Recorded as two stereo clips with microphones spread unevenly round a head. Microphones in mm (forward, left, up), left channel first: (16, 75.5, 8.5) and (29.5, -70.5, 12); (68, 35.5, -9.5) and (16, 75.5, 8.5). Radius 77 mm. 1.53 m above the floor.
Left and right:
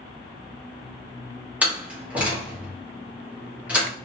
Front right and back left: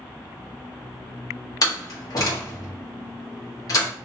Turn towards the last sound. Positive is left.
turn(degrees=-5)